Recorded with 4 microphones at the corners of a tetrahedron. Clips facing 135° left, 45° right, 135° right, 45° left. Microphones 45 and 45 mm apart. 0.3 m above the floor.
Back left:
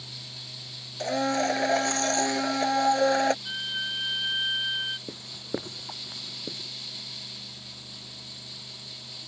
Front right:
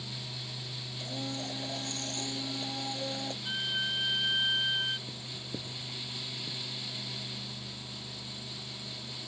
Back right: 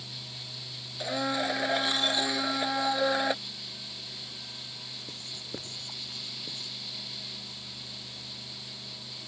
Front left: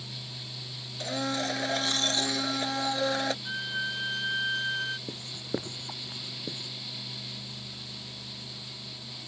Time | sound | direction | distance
1.0 | a blender | 145° left | ?
3.5 | a violin | 55° left | ?
5.1 | writing | 105° left | ?